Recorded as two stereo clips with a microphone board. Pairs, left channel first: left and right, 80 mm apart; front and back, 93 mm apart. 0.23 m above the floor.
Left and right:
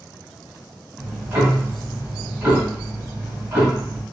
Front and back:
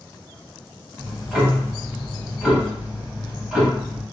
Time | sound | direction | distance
1.0 | ticking | 105° right | 0.9 m